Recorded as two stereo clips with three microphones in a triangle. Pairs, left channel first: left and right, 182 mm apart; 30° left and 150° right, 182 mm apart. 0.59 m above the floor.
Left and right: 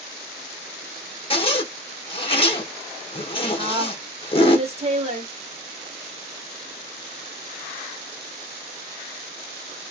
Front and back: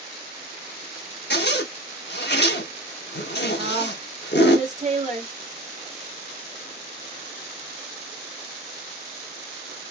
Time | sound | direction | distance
1.3 | a zipper | 35° left | 0.8 m
3.6 | a woman speaking | 130° right | 1.2 m